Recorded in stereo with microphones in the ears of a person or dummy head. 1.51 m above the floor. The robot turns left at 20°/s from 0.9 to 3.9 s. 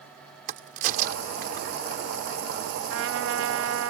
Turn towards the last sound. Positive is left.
turn(degrees=-85)